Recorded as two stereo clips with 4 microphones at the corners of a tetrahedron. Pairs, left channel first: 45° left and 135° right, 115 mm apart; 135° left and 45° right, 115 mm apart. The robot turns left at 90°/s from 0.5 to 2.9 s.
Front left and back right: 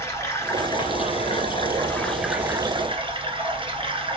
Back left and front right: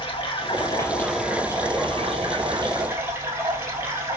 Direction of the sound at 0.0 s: 105° left.